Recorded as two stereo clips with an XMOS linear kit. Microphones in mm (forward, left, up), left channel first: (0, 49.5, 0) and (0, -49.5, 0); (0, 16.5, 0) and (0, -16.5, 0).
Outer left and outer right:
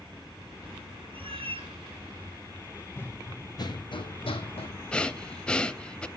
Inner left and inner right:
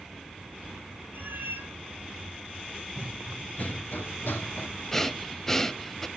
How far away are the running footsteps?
About 1.7 m.